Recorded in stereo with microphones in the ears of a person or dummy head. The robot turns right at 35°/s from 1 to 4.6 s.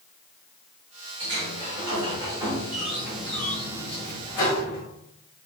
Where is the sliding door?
70° right, 1.2 m; by 4.8 s 50° left, 1.2 m.